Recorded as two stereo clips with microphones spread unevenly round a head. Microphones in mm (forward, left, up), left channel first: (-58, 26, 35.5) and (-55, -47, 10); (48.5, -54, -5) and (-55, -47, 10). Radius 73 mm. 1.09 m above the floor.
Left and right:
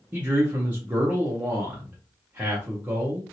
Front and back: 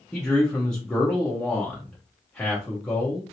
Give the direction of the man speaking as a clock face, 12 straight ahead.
2 o'clock.